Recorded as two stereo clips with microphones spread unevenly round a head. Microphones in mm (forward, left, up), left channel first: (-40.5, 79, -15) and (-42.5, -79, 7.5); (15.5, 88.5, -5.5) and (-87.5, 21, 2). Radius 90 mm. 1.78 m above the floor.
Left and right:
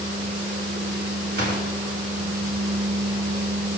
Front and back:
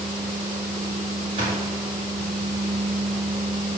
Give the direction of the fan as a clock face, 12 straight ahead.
3 o'clock.